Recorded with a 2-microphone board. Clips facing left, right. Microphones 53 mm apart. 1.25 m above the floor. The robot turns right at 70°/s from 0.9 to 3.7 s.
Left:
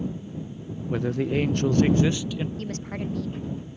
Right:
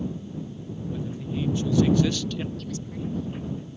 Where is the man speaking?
70° left; by 2.5 s straight behind.